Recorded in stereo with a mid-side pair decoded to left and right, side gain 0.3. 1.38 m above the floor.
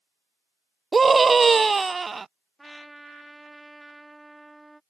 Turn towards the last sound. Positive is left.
turn(degrees=-10)